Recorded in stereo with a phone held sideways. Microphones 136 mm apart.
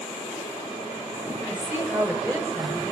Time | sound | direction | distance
1.5 | a woman speaking | 20° right (ahead or behind) | 4 m